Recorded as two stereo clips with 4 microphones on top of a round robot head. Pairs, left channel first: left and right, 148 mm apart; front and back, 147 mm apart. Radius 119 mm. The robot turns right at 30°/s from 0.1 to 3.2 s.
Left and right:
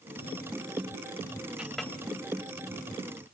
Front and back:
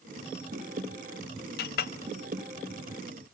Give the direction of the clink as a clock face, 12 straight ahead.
12 o'clock.